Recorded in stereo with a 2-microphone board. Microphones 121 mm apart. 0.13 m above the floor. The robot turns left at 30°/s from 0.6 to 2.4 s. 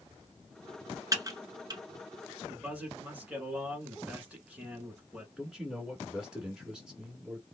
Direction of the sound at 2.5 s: 10° right (ahead or behind).